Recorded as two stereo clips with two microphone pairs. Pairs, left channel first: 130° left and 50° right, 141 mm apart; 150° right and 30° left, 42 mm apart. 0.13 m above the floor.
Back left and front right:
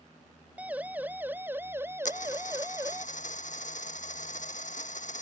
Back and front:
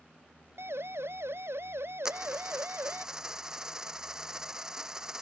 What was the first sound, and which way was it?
A siren, 30° left.